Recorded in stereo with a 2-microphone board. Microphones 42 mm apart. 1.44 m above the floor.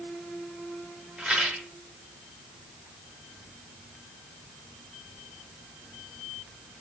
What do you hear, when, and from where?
1.2 s a rattle: 25° right (ahead or behind), 1.6 m